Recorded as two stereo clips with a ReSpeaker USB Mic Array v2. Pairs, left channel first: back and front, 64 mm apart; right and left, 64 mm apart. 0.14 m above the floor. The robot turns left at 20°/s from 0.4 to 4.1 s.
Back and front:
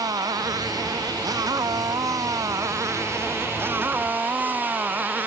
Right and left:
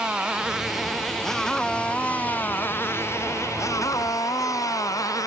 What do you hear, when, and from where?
0.0 s a motorcycle: 10° left; by 5.3 s 65° right